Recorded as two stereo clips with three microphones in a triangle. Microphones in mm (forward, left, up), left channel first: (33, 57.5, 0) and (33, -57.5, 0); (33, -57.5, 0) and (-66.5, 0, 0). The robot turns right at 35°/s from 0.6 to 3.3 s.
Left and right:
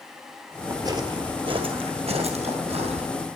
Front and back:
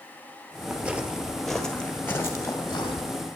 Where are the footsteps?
140° right, 1.5 m; by 3.1 s 70° right, 2.5 m.